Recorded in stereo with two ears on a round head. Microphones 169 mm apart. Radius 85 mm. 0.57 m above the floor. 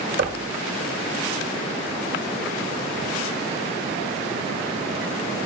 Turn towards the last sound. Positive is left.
turn(degrees=-50)  # may be behind; listen again after turning